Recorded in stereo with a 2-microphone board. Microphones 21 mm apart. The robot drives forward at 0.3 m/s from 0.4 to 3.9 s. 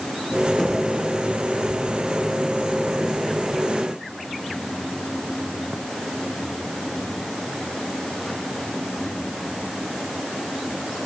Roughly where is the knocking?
Centre.